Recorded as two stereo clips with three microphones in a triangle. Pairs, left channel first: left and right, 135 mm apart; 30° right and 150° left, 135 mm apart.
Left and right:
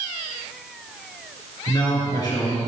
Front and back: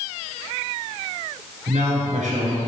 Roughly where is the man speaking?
Behind left.